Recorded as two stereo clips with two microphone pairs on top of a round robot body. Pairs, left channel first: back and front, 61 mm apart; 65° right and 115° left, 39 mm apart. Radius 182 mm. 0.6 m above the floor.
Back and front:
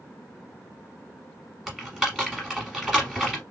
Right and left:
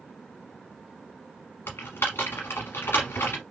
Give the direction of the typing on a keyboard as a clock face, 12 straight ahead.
3 o'clock.